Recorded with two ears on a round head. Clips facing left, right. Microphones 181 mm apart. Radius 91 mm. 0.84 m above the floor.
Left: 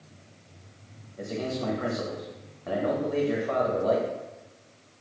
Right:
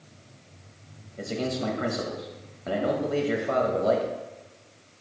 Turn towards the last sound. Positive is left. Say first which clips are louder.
# right 2 dB
turn(degrees=-30)  # may be behind; listen again after turning